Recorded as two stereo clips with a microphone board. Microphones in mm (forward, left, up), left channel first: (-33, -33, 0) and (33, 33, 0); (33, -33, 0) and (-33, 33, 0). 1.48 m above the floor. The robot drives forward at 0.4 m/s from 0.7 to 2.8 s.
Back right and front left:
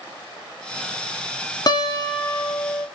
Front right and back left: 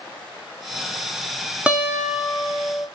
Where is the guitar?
155° right, 0.5 m; by 2.9 s 165° right, 0.9 m.